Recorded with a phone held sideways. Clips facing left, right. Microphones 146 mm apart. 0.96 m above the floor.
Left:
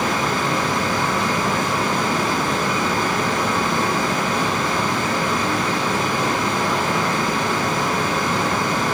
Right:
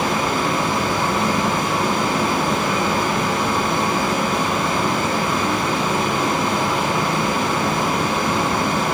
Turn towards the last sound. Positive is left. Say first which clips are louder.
# right 1 dB
turn(degrees=-25)  # may be behind; listen again after turning